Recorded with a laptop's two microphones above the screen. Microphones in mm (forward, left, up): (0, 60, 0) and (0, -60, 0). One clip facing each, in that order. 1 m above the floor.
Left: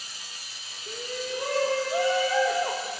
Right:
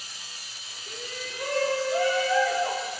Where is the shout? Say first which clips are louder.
Left 6 dB; 25° left (ahead or behind), 1.3 m.